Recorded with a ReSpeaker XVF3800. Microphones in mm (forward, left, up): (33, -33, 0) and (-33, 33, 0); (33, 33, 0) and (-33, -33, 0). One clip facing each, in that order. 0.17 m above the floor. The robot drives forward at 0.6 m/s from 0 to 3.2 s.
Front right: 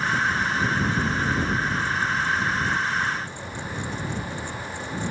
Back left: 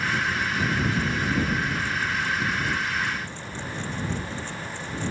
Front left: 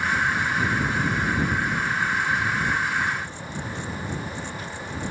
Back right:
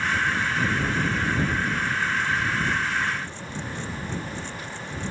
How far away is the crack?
I don't hear a crack.